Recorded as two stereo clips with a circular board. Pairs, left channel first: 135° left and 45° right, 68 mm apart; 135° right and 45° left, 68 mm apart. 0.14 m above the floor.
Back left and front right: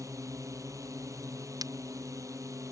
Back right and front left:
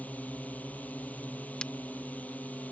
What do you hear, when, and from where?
0.0 s a drone: 70° right
1.6 s breaking glass: 60° right